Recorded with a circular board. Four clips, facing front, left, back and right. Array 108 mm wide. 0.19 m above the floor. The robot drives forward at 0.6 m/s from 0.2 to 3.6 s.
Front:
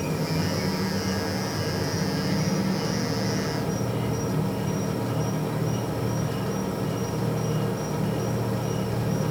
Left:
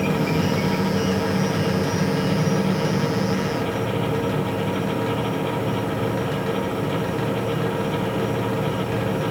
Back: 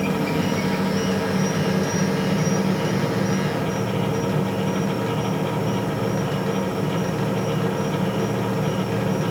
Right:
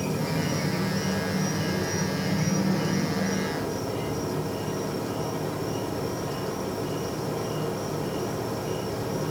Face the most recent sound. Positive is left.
turn(degrees=150)